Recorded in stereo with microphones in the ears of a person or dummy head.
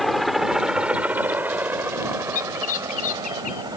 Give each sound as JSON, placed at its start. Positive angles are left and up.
{"t": 0.0, "sound": "a helicopter", "side_deg": 0}
{"t": 2.3, "sound": "a bird", "side_deg": 40}